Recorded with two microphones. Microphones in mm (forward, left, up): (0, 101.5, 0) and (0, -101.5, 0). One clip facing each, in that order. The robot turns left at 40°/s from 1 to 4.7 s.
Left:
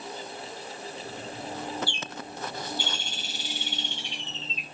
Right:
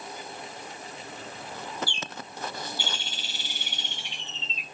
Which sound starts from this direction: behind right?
A bird, at 1.9 s.